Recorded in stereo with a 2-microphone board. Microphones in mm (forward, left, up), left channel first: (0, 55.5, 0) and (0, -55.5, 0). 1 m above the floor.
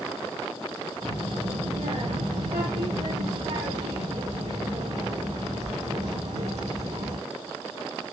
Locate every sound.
1.0 s a child speaking: 85° right, 3 m